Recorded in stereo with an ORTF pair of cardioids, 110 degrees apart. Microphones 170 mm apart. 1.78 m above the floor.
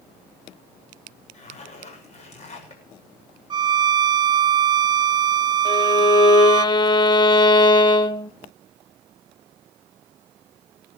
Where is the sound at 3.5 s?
25° right, 0.7 m.